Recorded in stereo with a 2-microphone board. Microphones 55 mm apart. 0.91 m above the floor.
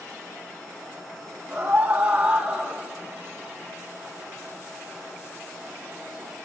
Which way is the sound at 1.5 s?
20° right (ahead or behind).